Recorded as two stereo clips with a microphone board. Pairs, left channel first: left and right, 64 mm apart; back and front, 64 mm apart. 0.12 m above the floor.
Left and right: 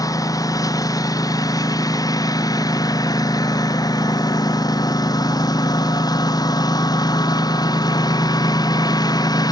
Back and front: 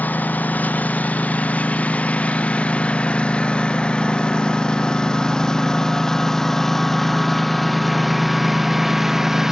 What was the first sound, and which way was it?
A lawn mower, 115° left.